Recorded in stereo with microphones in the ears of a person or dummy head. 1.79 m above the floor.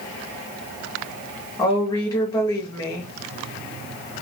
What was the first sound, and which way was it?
A woman speaking, 25° left (ahead or behind).